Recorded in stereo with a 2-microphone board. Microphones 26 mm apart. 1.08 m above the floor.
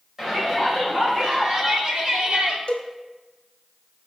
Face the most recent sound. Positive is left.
turn(degrees=55)  # may be behind; listen again after turning